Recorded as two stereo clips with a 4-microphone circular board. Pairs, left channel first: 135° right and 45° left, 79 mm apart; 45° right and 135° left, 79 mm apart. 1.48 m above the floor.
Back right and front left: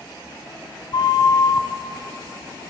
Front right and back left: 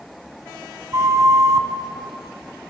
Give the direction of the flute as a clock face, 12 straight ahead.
6 o'clock.